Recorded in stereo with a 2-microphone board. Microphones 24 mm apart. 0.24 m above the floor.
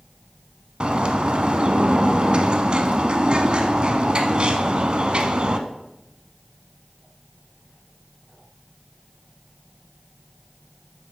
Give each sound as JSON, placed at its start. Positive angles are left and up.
{"t": 0.8, "sound": "a bird", "side_deg": -40, "distance_m": 0.8}